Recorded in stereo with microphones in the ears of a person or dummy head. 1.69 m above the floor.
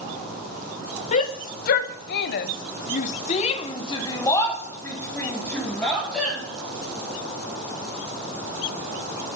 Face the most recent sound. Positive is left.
turn(degrees=5)  # may be behind; listen again after turning